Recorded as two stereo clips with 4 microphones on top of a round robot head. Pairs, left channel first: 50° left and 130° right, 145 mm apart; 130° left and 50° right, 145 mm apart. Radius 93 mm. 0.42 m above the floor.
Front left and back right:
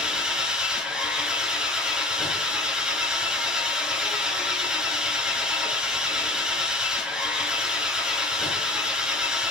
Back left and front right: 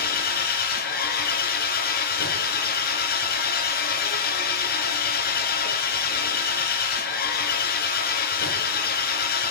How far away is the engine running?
About 3.5 m.